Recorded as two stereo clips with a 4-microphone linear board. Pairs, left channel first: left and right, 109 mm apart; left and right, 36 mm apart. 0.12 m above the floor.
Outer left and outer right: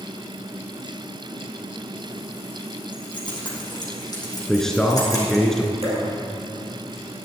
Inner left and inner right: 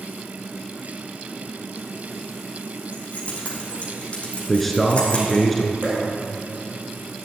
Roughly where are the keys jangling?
Left.